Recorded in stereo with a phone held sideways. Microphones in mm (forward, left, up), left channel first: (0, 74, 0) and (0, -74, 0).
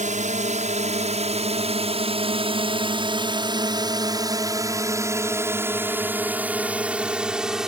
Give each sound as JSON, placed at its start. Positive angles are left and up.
{"t": 0.0, "sound": "a drone", "side_deg": -55}